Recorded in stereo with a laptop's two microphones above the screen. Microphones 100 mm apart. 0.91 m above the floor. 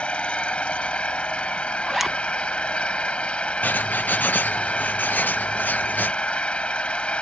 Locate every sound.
0.0 s an engine running: 10° left (ahead or behind)
1.9 s a zipper: centre (ahead or behind)
3.6 s writing: 20° left (ahead or behind)